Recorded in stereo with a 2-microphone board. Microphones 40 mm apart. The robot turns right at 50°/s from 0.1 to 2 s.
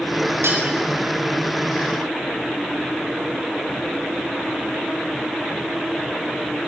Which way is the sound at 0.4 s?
85° right.